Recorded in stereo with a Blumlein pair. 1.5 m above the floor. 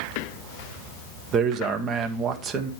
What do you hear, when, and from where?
1.3 s a man speaking: 25° right, 1.3 m